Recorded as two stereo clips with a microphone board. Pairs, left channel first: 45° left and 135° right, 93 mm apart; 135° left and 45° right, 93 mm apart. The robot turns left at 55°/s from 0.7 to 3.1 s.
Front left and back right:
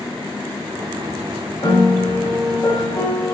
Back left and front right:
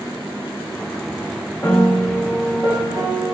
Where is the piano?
70° left, 3 m; by 3.4 s 10° right, 3 m.